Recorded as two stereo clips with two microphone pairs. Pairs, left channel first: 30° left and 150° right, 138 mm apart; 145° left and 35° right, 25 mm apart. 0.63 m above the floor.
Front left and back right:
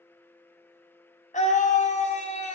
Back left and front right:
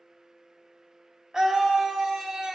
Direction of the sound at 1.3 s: 30° left.